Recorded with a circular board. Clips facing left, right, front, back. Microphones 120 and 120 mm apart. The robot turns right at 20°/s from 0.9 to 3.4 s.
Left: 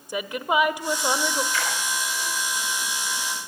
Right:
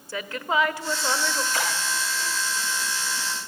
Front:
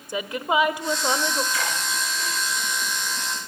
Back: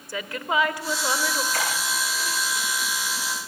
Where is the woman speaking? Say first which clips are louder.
Left 2 dB, front 3 dB; 40° left, 0.9 m; by 1.4 s 50° left, 0.9 m.